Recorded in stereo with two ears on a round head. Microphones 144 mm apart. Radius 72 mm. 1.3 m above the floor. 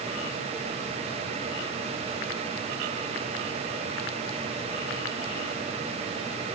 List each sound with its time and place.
Only background noise.